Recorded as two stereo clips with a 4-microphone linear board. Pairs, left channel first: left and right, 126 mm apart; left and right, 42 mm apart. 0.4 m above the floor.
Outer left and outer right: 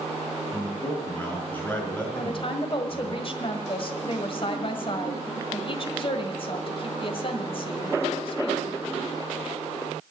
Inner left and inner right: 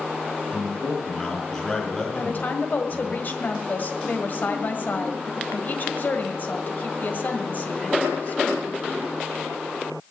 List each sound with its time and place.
0.5 s a man speaking: 15° left (ahead or behind), 4.5 m
2.1 s a woman speaking: 45° left (ahead or behind), 1.6 m